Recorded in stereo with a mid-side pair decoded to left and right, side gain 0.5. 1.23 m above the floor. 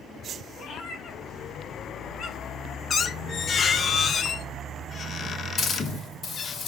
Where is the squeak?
40° left, 0.8 m.